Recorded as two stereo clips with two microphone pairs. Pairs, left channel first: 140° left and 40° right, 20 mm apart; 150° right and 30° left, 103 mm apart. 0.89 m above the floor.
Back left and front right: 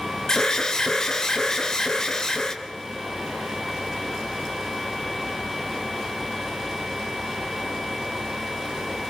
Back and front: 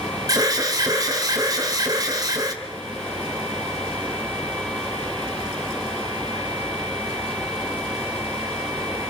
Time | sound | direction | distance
0.3 | an alarm | 80° left | 2.5 m